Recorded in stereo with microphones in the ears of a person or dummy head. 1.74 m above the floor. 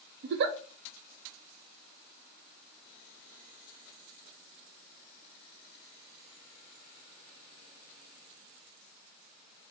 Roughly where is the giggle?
Right.